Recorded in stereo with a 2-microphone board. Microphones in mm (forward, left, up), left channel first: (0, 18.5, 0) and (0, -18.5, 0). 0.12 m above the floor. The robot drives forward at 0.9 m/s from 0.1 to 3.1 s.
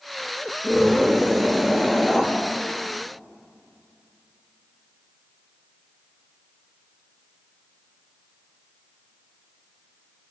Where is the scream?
10° left (ahead or behind), 9 m.